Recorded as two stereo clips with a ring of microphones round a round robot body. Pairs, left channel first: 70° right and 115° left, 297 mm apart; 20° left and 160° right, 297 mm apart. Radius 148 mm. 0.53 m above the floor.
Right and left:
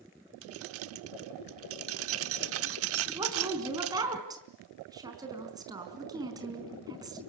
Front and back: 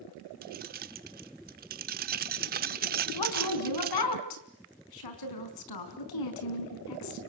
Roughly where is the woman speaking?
Ahead left.